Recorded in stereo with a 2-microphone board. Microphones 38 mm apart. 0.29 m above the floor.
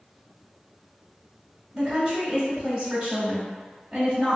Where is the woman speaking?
25° right (ahead or behind), 1.8 m.